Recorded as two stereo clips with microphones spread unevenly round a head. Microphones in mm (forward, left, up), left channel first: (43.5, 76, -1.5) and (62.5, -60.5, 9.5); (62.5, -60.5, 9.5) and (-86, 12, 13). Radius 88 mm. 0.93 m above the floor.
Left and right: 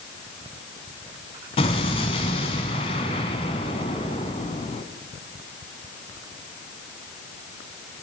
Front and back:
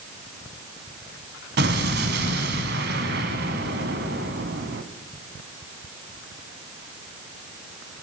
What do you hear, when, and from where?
1.6 s an explosion: 155° left, 1.4 m